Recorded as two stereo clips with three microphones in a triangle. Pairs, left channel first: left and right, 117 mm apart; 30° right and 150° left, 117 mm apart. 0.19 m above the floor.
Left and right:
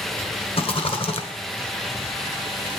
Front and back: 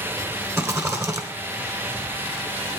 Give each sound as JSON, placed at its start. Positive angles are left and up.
{"t": 0.6, "sound": "a rattle", "azimuth_deg": 90, "distance_m": 1.4}